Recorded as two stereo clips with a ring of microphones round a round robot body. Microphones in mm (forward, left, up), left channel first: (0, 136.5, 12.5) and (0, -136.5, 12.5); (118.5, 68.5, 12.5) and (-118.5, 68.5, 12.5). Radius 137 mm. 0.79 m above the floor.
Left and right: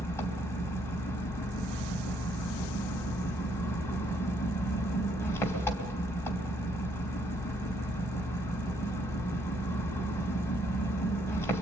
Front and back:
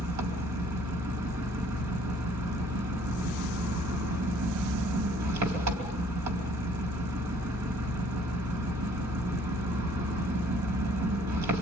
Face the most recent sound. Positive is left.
turn(degrees=170)